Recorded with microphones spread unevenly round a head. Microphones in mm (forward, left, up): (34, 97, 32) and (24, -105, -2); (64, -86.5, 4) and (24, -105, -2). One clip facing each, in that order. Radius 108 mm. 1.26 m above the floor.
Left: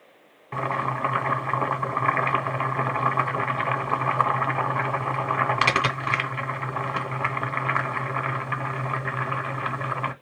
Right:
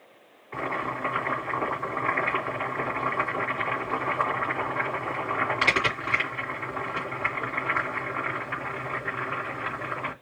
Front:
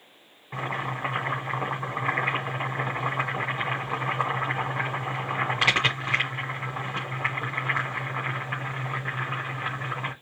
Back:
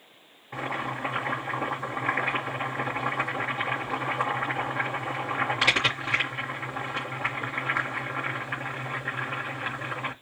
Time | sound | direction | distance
0.5 | boiling | 100° left | 2.5 m